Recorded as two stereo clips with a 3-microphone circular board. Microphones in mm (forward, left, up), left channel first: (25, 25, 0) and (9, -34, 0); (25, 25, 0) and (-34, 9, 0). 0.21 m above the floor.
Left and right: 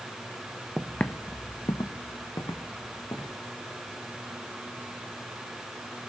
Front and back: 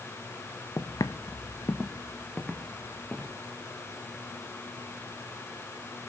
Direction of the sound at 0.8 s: 25° right.